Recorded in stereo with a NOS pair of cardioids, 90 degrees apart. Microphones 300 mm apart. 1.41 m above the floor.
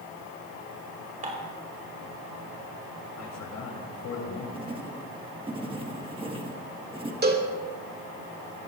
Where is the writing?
15° right, 1.9 m.